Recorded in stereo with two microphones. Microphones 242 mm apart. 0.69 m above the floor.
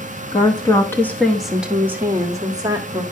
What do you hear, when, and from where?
0.3 s a woman speaking: 20° left (ahead or behind), 1.1 m; by 3.0 s 20° right (ahead or behind), 1.8 m